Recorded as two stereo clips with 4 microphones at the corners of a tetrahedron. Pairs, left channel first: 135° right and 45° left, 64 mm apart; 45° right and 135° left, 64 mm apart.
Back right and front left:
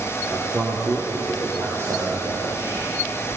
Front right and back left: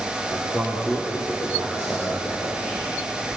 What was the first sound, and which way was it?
A man speaking, straight ahead.